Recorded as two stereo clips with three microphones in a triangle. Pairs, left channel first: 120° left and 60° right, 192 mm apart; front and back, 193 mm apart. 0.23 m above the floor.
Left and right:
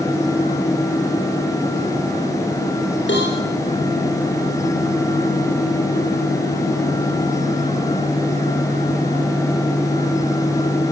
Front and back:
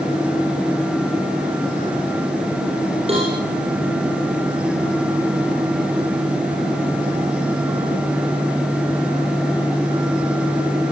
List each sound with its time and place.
3.1 s a cowbell: 125° left, 10 m